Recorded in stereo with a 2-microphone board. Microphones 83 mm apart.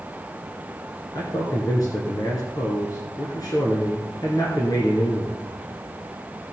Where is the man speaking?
50° left (ahead or behind), 2 m.